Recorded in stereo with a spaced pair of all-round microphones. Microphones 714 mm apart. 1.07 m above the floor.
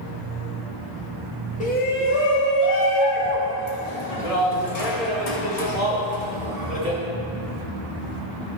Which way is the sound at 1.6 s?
10° left (ahead or behind).